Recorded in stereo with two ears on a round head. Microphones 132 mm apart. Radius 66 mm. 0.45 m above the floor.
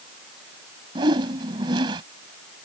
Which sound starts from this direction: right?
A whoosh, at 0.9 s.